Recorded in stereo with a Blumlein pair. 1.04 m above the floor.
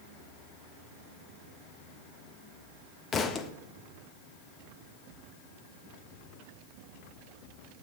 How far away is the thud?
About 1.0 m.